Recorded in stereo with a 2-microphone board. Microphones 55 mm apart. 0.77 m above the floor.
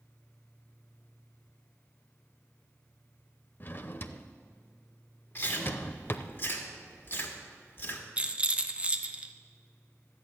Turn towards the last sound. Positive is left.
turn(degrees=-20)  # may be behind; listen again after turning